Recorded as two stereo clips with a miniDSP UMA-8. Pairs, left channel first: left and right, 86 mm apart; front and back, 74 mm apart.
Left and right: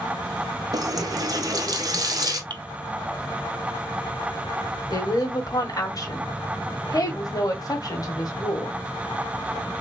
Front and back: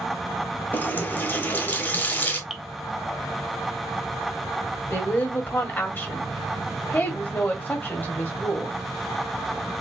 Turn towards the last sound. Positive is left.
turn(degrees=60)